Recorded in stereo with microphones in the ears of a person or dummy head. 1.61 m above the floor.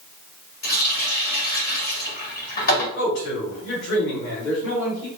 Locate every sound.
0.6 s a running tap: 60° left (ahead or behind), 1.8 m
3.0 s a man speaking: 80° left, 2 m